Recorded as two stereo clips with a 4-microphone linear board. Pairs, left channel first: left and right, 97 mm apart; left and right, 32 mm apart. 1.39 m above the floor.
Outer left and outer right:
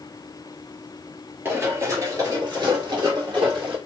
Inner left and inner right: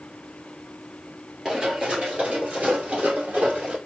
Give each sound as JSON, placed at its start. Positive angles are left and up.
{"t": 1.4, "sound": "running footsteps", "side_deg": -20, "distance_m": 1.7}